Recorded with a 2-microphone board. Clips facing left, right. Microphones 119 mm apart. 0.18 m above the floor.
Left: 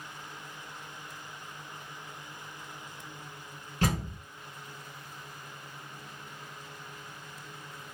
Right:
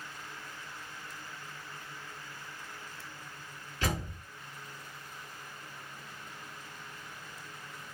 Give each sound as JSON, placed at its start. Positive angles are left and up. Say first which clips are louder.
{"t": 3.8, "sound": "a door slam", "louder": "left 4 dB", "side_deg": 45, "distance_m": 1.9}